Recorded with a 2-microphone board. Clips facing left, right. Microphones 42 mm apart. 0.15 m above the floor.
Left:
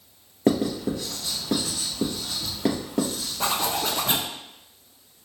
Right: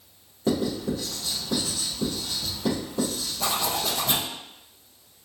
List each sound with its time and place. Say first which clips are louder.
0.5 s writing: left 3 dB; 65° left (ahead or behind), 2.5 m
3.4 s a zipper: left 2 dB; 40° left (ahead or behind), 0.8 m